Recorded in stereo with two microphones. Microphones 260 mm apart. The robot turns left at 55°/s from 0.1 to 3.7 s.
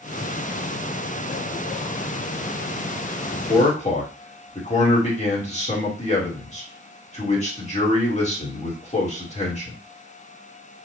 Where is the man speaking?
20° left (ahead or behind), 1.4 m; by 9.8 s 25° left (ahead or behind), 1.4 m.